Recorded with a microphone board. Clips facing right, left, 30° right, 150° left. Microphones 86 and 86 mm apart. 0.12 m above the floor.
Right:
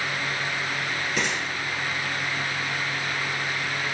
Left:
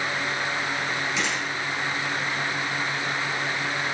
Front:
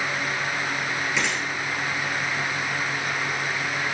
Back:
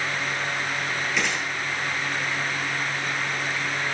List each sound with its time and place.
1.2 s a gunshot: 120° right, 2 m